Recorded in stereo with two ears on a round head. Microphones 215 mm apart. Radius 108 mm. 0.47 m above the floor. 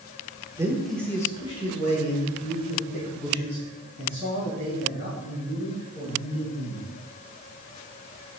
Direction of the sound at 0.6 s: 15° right (ahead or behind).